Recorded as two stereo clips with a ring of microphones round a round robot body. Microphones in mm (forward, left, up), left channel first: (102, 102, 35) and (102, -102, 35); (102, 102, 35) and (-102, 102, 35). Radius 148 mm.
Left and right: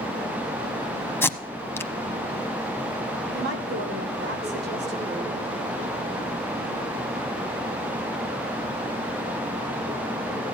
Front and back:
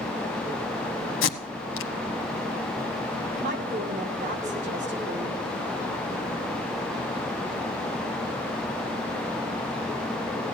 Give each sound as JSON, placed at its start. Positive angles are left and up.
{"t": 1.2, "sound": "tape being pulled", "azimuth_deg": 10, "distance_m": 1.0}
{"t": 3.3, "sound": "a woman speaking", "azimuth_deg": -125, "distance_m": 1.9}